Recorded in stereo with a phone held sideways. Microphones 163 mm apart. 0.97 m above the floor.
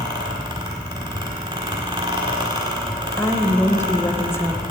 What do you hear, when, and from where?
0.0 s a fan: 30° right (ahead or behind), 1.5 m
3.2 s a woman speaking: 15° left (ahead or behind), 0.8 m